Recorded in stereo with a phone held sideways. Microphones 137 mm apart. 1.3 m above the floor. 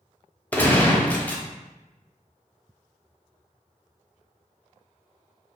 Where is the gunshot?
10° left (ahead or behind), 0.5 m.